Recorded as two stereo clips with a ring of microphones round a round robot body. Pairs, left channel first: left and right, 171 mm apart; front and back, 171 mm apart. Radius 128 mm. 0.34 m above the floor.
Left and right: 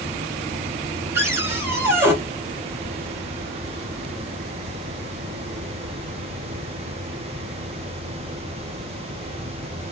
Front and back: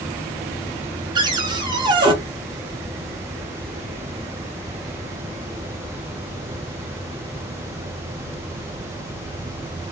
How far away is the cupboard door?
About 0.9 m.